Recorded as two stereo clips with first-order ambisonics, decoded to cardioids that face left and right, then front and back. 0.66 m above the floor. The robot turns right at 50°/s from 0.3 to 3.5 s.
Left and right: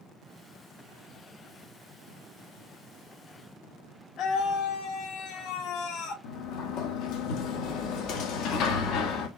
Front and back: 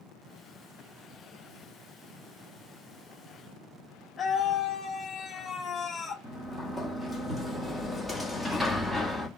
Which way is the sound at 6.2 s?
95° left.